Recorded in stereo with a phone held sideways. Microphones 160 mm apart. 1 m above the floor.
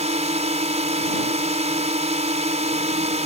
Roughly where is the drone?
Right.